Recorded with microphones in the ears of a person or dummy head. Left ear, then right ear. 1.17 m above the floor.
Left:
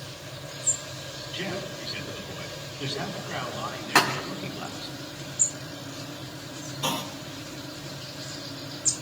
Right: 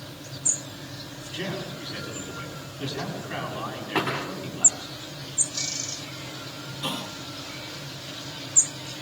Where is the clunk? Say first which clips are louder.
Left 2 dB; 30° left (ahead or behind), 1.0 m.